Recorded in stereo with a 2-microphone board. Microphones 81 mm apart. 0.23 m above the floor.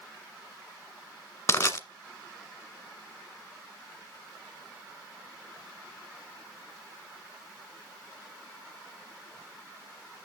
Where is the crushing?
35° left (ahead or behind), 1.5 m.